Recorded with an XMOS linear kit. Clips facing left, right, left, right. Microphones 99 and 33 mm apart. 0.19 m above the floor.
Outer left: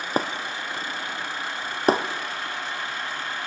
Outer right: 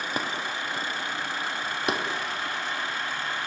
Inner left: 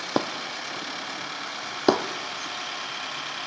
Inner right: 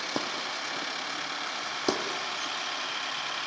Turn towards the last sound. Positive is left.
turn(degrees=40)  # may be behind; listen again after turning